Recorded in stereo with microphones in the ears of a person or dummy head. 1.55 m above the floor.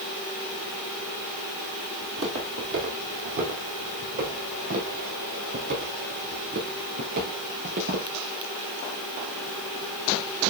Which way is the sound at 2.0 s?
50° right (ahead or behind).